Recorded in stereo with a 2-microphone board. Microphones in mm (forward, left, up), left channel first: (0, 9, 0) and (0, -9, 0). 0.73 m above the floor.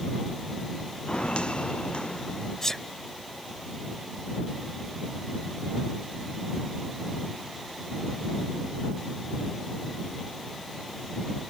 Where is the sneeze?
20° left (ahead or behind).